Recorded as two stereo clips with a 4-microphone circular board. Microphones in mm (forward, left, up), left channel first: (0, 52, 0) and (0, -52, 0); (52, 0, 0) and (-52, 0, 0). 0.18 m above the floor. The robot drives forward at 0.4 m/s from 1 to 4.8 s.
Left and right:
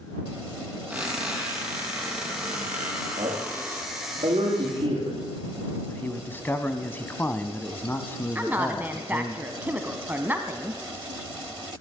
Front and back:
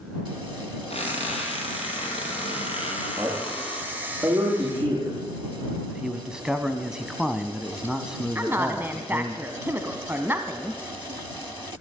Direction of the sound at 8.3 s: 140° right.